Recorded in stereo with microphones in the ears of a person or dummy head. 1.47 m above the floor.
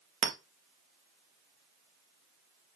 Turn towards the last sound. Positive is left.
turn(degrees=-45)  # may be behind; listen again after turning